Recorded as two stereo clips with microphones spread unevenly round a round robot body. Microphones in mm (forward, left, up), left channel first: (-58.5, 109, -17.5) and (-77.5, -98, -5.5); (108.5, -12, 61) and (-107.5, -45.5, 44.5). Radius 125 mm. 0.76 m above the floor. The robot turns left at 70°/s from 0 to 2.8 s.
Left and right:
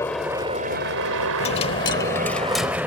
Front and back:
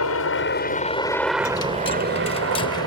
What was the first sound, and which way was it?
A helicopter, 5° left.